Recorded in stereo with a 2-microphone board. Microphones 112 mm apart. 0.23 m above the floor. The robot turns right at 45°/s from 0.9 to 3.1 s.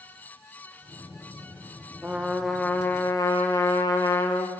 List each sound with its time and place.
2.0 s a trumpet: 15° right, 2.5 m; by 4.5 s 30° left, 2.5 m